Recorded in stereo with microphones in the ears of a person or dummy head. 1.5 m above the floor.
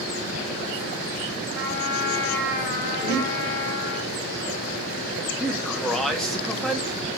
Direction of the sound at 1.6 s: 80° left.